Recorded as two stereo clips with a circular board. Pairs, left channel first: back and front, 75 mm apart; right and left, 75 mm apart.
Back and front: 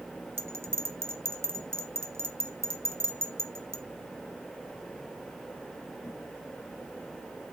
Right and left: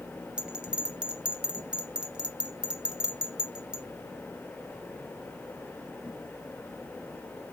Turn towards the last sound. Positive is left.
turn(degrees=20)